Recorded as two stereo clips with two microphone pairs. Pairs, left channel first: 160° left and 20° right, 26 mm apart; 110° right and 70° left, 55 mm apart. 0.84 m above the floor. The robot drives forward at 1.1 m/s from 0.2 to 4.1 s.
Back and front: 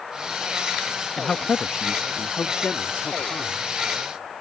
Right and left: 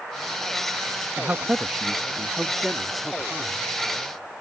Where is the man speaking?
90° left; by 3.7 s 165° left.